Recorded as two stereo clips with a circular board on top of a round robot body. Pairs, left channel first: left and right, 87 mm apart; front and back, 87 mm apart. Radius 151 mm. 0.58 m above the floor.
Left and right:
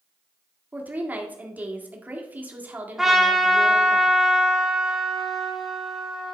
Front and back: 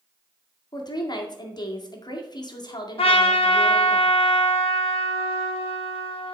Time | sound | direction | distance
0.7 | a woman speaking | 20° right | 2.0 m
3.0 | a trumpet | 5° right | 0.9 m